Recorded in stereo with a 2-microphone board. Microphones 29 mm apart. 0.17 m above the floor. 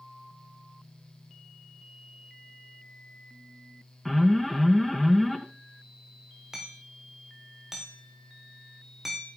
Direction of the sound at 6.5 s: 10° right (ahead or behind).